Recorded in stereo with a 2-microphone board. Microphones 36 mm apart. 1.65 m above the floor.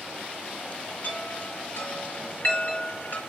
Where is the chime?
55° left (ahead or behind), 3 m.